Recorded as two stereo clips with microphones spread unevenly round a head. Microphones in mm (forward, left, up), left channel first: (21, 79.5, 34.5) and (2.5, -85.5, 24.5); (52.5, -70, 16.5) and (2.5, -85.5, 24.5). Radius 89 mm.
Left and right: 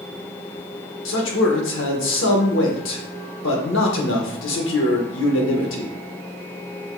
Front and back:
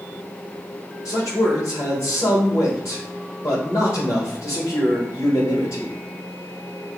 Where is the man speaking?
85° left, 1.2 m.